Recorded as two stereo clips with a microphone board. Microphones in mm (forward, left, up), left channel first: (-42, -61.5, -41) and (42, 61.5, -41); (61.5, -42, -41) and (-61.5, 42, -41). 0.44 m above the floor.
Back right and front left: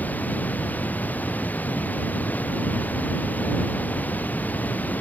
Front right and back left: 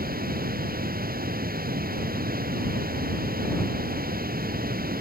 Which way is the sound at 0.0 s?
155° left.